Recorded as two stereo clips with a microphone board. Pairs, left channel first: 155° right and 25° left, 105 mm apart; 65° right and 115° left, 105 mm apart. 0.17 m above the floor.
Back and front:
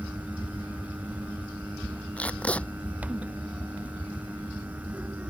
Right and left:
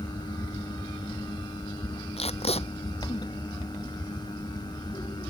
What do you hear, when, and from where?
2.2 s tape being pulled: 80° right